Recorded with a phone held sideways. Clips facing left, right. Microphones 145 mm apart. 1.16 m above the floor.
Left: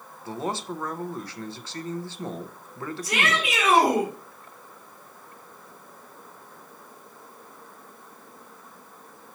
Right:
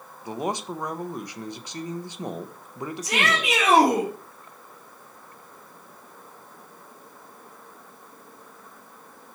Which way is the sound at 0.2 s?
15° right (ahead or behind).